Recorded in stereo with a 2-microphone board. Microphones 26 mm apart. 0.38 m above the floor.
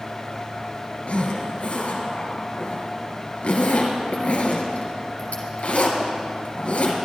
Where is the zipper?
75° left (ahead or behind), 2.5 m.